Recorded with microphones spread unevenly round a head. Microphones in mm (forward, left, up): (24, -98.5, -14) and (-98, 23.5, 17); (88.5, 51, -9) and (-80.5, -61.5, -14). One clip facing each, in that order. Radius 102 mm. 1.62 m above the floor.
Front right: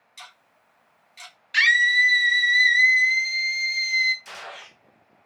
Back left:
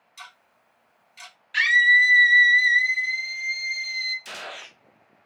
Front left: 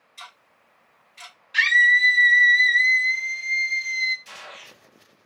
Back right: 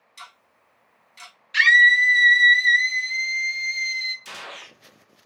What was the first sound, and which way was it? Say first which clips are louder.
Ticking: even, front left 1 dB; 140° right.